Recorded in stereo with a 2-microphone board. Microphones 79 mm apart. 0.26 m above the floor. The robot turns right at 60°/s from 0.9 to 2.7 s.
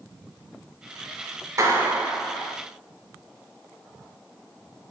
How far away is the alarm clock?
I don't hear an alarm clock.